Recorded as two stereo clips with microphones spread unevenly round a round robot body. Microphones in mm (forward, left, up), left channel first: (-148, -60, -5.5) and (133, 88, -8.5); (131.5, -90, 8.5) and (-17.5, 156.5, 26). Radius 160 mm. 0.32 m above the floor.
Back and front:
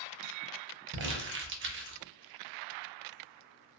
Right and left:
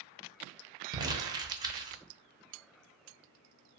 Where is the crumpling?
50° left, 0.6 m.